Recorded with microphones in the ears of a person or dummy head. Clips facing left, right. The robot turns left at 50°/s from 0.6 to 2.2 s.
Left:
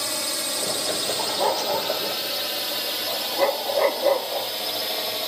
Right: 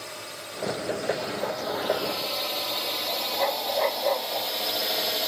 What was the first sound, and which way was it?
A drone, 75° left (ahead or behind).